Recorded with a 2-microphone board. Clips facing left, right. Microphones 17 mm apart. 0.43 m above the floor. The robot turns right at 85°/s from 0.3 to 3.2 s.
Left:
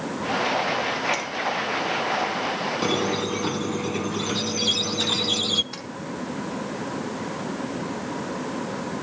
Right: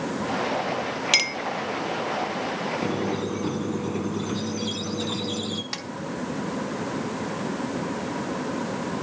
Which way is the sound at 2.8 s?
110° left.